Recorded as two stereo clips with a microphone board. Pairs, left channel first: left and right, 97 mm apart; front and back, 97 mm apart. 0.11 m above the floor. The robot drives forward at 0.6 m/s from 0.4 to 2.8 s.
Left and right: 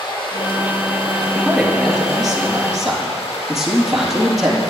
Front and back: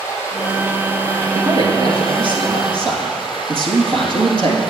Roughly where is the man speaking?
Behind.